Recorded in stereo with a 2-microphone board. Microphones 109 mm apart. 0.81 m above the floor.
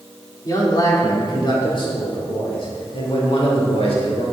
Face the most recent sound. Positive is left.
turn(degrees=65)  # may be behind; listen again after turning